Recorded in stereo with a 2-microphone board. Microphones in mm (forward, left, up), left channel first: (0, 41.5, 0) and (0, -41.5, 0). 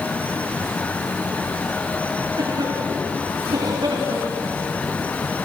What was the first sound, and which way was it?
A cough, 55° right (ahead or behind).